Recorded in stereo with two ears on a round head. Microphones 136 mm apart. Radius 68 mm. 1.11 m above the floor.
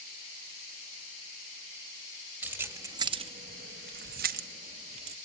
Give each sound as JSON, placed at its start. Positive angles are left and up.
{"t": 2.4, "sound": "keys jangling", "side_deg": -10, "distance_m": 1.2}